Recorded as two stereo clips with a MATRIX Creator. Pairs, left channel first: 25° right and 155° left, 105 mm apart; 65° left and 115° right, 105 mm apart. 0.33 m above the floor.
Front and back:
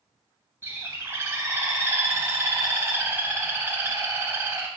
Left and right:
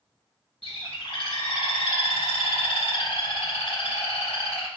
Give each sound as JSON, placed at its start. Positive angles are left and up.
{"t": 0.6, "sound": "a bird", "azimuth_deg": 95, "distance_m": 0.5}